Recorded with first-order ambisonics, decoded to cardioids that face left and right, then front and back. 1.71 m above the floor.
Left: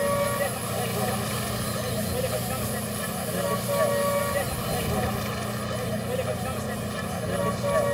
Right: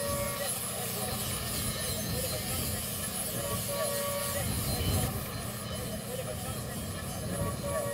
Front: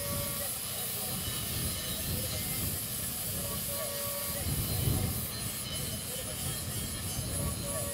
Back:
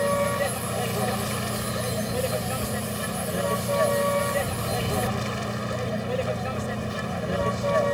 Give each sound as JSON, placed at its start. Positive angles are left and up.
{"t": 0.0, "sound": "a vehicle", "azimuth_deg": 145}